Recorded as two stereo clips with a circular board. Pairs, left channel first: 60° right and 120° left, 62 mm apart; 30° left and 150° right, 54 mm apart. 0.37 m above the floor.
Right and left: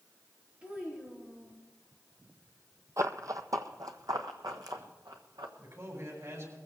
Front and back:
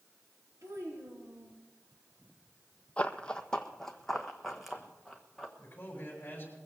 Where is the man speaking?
85° left, 6.5 m.